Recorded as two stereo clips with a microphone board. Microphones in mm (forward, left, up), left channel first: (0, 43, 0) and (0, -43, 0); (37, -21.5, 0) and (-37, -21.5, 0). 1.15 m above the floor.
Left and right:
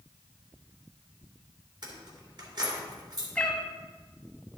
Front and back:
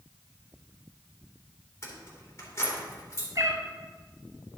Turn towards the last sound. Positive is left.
turn(degrees=165)